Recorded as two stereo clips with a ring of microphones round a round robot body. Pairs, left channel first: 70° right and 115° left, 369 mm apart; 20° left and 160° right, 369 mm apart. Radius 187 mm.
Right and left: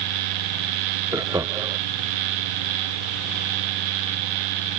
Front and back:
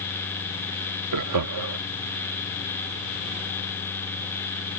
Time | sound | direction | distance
1.1 | laughter | 170° right | ?